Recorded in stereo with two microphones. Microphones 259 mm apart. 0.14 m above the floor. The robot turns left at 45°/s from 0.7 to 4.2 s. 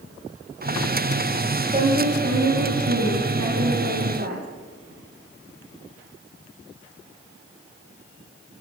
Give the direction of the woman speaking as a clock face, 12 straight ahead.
1 o'clock.